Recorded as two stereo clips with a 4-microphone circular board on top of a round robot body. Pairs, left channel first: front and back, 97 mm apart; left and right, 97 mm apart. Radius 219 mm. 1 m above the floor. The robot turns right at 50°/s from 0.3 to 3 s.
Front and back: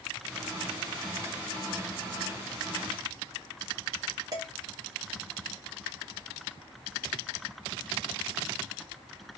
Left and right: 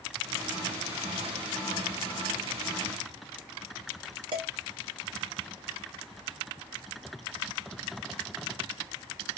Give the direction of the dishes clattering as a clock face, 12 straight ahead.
4 o'clock.